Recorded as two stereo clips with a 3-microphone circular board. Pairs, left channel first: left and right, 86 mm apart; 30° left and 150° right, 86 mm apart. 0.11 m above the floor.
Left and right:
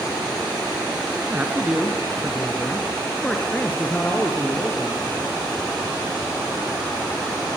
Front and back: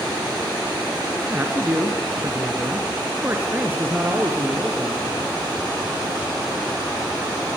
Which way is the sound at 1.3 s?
130° right.